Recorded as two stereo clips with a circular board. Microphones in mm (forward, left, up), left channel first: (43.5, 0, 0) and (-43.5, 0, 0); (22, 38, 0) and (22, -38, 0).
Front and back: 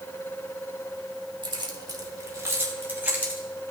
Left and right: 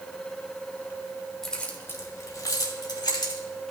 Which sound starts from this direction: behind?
Keys jangling, at 1.4 s.